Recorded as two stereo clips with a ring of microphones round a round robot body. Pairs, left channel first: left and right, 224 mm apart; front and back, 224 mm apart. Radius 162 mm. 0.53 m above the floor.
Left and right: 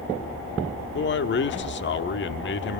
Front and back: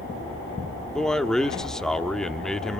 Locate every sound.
0.9 s a man speaking: 85° left, 1.2 m